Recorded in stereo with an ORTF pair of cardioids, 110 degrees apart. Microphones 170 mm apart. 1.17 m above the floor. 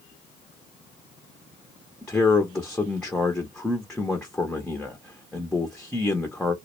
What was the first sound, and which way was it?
A man speaking, 5° left.